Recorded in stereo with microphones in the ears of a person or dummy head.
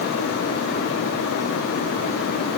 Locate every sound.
Only background noise.